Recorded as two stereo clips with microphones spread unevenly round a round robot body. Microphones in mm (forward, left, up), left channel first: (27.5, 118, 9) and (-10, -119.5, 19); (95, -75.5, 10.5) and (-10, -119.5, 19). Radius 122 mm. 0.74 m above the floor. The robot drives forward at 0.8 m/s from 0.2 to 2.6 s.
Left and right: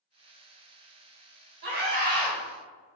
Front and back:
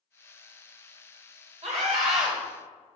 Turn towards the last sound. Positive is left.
turn(degrees=-155)